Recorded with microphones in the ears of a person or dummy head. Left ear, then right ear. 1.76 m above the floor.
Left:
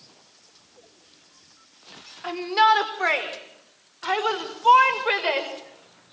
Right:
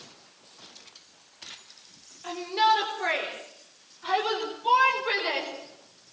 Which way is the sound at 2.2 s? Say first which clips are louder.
Left 5 dB; 50° left (ahead or behind).